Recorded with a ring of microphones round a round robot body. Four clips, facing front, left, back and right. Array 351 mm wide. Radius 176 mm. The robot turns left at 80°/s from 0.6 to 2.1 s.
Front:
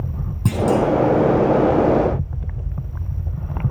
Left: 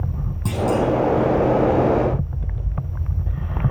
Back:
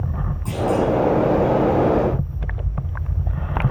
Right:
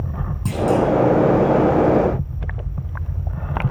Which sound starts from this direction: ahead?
A clunk, at 0.5 s.